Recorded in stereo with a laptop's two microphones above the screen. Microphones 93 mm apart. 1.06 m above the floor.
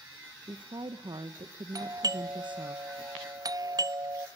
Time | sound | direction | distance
0.4 | a woman speaking | 60° right (ahead or behind) | 0.8 m
1.8 | a doorbell | 40° right (ahead or behind) | 0.7 m